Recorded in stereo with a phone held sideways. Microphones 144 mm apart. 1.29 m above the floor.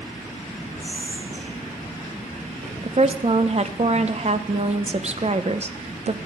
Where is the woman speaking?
50° right (ahead or behind), 0.7 m.